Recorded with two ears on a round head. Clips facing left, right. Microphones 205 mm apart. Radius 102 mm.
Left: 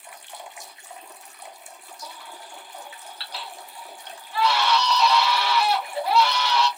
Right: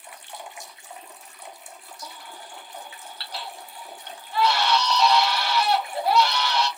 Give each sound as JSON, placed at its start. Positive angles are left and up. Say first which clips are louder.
{"t": 2.0, "sound": "a baby crying", "louder": "left 1 dB", "side_deg": -35, "distance_m": 1.2}